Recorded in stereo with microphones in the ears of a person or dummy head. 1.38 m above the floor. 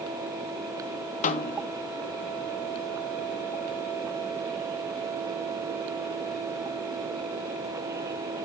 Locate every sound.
1.2 s a snare drum: 40° left (ahead or behind), 0.8 m